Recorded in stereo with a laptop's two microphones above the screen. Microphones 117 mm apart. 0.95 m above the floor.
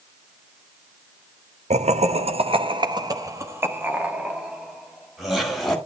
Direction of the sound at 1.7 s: 80° right.